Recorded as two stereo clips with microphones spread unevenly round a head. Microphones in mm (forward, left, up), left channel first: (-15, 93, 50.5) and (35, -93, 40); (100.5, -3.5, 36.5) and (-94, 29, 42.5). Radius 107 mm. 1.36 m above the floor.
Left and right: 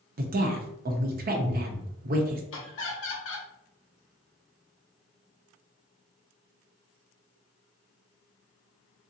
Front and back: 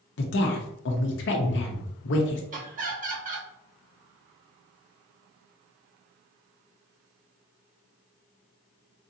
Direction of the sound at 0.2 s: 35° right.